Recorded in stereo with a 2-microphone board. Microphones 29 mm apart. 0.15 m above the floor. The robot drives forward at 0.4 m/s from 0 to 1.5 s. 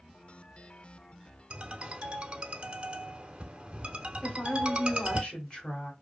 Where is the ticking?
I don't hear ticking.